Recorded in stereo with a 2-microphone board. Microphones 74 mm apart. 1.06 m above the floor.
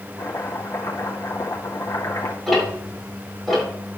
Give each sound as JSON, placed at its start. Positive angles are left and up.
{"t": 0.2, "sound": "chopping", "side_deg": 60, "distance_m": 2.5}
{"t": 2.5, "sound": "ticking", "side_deg": 0, "distance_m": 6.0}